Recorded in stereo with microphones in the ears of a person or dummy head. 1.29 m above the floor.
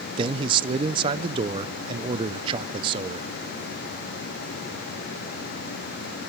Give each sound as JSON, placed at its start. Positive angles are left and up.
{"t": 0.2, "sound": "a man speaking", "side_deg": -25, "distance_m": 0.7}